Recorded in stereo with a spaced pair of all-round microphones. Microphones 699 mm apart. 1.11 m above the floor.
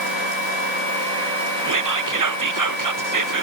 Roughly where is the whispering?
Right.